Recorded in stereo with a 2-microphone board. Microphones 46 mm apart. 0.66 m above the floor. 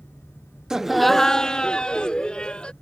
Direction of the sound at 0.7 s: 15° right (ahead or behind).